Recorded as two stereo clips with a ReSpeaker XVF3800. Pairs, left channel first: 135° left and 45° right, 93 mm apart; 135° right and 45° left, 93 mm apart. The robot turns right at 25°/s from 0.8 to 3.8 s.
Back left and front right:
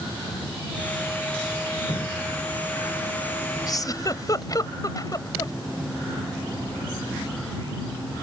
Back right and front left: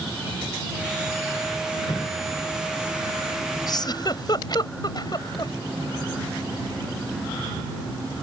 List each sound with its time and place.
1.9 s dripping: 175° left; by 2.3 s 175° right
3.7 s a giggle: straight behind; by 5.5 s 175° right